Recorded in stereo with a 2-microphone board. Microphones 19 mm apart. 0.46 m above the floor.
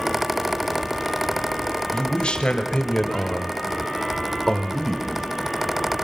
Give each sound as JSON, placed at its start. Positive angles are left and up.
{"t": 1.9, "sound": "a man speaking", "side_deg": 60, "distance_m": 2.0}